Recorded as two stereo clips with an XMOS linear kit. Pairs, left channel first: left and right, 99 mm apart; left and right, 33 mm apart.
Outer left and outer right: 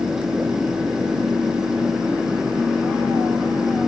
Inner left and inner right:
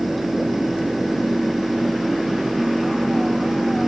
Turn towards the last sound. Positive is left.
No sound to turn to.